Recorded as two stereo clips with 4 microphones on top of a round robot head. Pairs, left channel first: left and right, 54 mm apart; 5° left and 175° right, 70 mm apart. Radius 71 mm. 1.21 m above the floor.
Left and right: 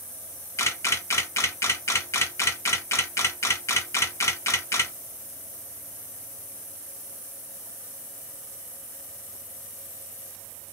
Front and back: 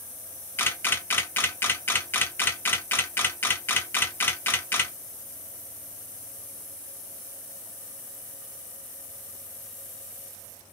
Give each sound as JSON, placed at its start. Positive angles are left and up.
{"t": 0.6, "sound": "a camera shutter", "azimuth_deg": 60, "distance_m": 1.2}